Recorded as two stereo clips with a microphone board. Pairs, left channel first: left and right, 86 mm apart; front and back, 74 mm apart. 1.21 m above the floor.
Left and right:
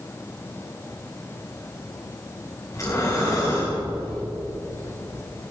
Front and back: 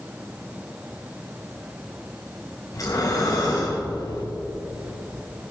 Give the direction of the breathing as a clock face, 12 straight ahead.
11 o'clock.